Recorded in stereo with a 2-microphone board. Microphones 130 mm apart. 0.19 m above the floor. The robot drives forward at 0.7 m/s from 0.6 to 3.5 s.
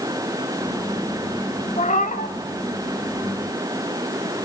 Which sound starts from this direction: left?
A cat meowing, at 1.8 s.